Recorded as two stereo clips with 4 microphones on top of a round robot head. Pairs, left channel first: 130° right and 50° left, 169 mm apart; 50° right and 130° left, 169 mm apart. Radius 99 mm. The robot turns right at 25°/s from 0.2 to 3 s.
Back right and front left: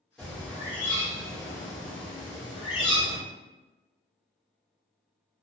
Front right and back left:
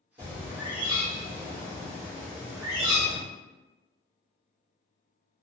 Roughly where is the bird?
Behind left.